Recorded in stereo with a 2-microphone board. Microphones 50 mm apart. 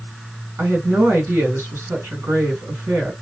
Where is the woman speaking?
55° right (ahead or behind), 2 m.